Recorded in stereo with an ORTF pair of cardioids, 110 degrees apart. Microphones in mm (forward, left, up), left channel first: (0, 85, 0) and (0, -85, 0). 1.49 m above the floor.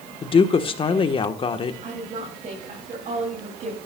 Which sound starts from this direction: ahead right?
A woman speaking, at 1.8 s.